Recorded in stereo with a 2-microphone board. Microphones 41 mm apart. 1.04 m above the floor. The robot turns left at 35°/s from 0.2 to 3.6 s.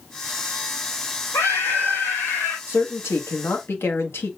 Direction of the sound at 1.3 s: 95° left.